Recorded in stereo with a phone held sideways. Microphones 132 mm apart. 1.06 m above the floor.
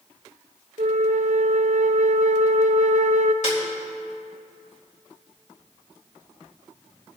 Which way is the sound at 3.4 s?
60° left (ahead or behind).